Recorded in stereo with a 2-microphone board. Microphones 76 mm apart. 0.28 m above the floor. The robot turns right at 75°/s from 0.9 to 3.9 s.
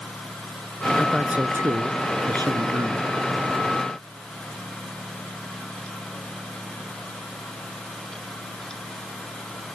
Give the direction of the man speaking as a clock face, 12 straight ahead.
6 o'clock.